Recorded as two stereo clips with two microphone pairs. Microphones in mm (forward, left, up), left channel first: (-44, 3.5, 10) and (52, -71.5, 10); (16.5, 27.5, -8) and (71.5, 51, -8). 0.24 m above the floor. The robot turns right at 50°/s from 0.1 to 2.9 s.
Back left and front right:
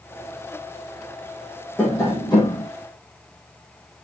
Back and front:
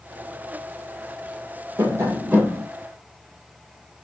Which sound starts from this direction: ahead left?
Tapping, at 1.8 s.